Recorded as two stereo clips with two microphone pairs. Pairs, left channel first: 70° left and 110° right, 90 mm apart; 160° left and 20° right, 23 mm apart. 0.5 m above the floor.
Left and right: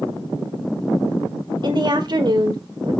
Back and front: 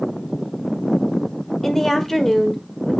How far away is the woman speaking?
About 1.5 m.